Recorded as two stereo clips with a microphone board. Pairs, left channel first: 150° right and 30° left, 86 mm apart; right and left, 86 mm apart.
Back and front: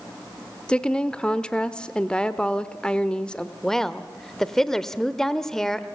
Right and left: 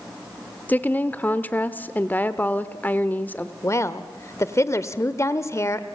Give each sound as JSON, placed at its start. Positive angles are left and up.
{"t": 0.7, "sound": "a woman speaking", "azimuth_deg": -95, "distance_m": 0.8}
{"t": 3.6, "sound": "a woman speaking", "azimuth_deg": -70, "distance_m": 0.9}